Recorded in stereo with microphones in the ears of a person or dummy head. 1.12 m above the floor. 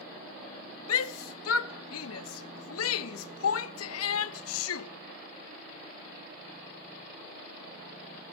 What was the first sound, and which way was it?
A shout, 75° left (ahead or behind).